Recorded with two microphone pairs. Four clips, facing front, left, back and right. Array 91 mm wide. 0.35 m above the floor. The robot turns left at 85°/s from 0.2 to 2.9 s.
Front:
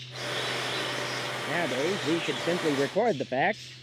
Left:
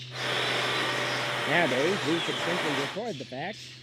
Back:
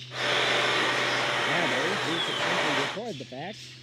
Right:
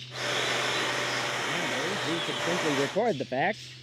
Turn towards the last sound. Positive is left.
turn(degrees=-30)